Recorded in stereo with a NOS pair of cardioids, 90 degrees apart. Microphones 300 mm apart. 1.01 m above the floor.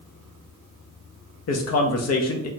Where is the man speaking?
60° left, 1.0 m.